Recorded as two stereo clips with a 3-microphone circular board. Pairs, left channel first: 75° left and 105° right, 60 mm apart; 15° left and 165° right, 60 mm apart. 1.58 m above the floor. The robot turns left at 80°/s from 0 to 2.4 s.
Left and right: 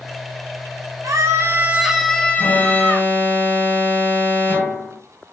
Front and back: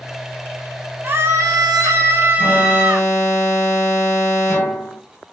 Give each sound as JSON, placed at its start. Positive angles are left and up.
{"t": 1.0, "sound": "a scream", "azimuth_deg": -115, "distance_m": 1.0}
{"t": 2.4, "sound": "an alarm", "azimuth_deg": 25, "distance_m": 1.6}